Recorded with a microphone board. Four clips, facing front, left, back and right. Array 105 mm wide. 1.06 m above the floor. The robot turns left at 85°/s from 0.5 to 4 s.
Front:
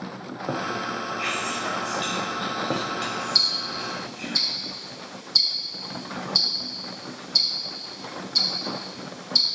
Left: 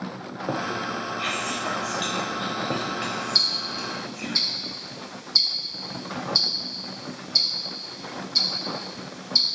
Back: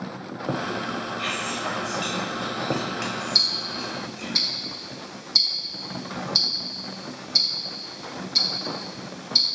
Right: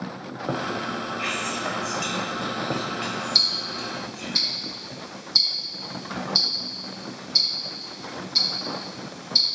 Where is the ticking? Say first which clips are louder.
Even, even; 100° right, 0.6 m; by 9.6 s 155° right, 0.6 m.